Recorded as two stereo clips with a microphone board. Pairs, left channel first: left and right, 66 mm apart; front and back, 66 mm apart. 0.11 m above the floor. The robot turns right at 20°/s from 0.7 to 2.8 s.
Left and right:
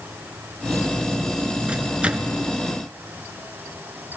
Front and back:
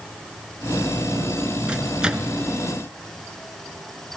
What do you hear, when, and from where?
1.7 s a microwave: 135° right, 0.9 m; by 2.4 s 120° right, 0.9 m